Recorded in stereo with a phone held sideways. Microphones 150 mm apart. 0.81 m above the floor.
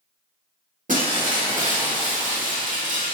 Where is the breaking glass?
60° right (ahead or behind), 1.0 m.